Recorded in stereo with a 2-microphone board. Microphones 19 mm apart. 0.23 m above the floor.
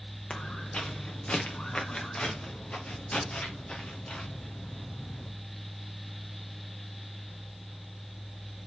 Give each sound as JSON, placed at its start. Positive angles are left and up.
{"t": 0.3, "sound": "footsteps", "side_deg": 80, "distance_m": 3.0}